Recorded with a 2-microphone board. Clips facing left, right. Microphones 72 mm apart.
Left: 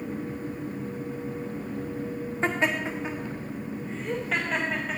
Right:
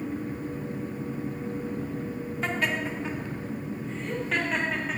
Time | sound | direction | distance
2.4 | laughter | 30° left (ahead or behind) | 1.5 m